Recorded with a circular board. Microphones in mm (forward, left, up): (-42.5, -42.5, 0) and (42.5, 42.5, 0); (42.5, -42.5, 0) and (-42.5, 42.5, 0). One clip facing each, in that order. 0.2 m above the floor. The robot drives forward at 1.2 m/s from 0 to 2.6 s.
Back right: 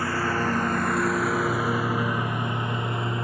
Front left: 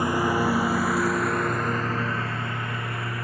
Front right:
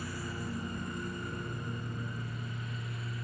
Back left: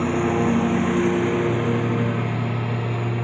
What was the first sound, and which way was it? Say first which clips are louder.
A lawn mower: front left 3 dB, back left 20 dB; 115° left.